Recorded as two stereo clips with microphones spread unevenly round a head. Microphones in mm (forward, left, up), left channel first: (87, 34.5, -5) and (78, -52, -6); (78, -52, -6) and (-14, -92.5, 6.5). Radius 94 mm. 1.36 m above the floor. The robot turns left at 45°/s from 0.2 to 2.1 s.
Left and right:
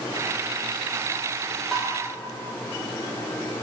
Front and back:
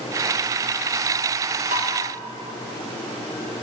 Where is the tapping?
175° left, 1.4 m; by 1.9 s 165° left, 1.4 m.